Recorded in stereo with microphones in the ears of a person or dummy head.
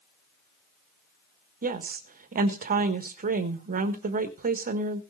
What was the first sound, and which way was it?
A woman speaking, 45° right (ahead or behind).